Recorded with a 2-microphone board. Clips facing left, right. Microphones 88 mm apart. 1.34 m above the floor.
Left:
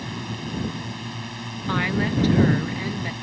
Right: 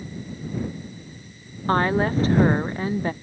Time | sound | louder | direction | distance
0.0 | a drone | left 3 dB | 85° left | ?
1.7 | a woman speaking | right 4 dB | 35° right (ahead or behind) | ?